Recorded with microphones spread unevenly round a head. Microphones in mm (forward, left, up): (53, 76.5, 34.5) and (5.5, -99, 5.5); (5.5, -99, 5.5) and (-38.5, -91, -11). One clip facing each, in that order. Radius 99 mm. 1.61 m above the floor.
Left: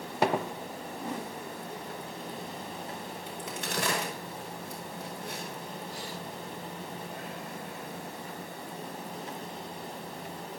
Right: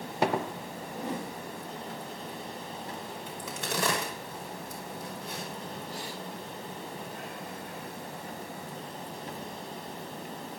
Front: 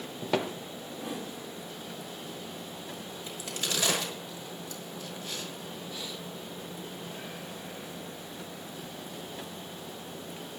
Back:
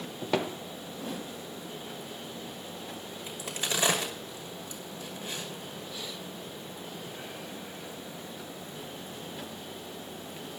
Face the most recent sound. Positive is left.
turn(degrees=-120)